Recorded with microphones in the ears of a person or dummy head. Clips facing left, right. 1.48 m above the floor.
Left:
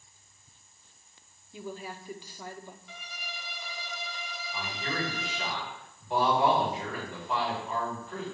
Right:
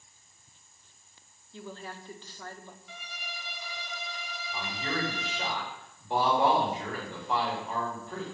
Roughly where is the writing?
I don't hear writing.